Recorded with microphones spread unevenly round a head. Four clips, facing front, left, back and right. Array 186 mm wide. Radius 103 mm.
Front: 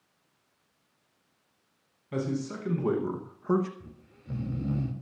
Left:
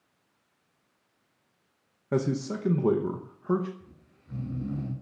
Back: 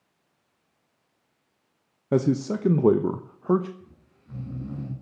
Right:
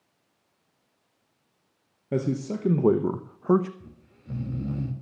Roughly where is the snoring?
Right.